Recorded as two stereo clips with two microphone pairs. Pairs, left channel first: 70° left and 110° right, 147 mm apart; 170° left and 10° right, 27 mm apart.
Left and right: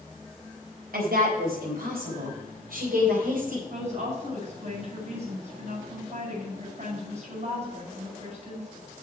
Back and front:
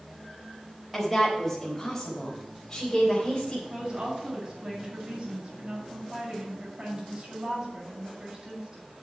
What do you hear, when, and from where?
0.9 s a woman speaking: 110° right, 4 m; by 3.6 s 130° right, 4 m
3.7 s a woman speaking: 70° right, 5.5 m